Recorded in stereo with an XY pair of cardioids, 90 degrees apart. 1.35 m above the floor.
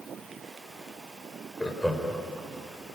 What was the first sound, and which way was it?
Laughter, straight ahead.